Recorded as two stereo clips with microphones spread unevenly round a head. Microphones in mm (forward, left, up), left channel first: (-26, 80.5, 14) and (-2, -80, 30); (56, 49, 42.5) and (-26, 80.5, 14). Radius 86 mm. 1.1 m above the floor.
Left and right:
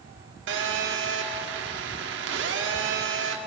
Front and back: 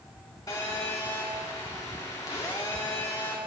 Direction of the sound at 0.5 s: 90° right.